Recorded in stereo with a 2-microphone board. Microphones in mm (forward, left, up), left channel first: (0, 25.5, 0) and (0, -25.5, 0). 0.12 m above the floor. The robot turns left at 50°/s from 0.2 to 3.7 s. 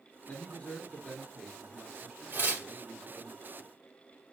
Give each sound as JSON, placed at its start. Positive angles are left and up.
{"t": 0.3, "sound": "a man speaking", "azimuth_deg": 55, "distance_m": 1.7}
{"t": 2.3, "sound": "tearing paper", "side_deg": -40, "distance_m": 2.5}